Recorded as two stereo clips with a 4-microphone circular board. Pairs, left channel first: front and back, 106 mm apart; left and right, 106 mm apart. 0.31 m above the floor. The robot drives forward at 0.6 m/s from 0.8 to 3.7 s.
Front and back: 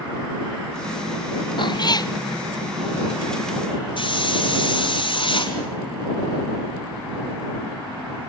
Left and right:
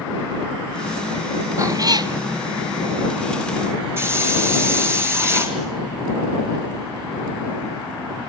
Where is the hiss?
30° right, 3.5 m.